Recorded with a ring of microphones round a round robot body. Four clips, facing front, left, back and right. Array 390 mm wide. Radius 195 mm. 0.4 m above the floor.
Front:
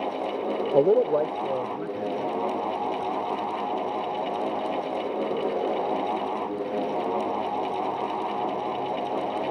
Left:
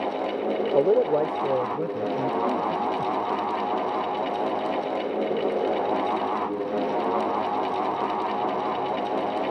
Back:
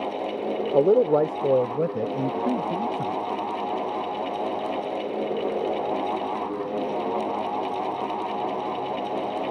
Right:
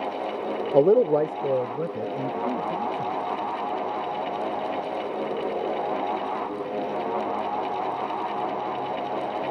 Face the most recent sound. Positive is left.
turn(degrees=180)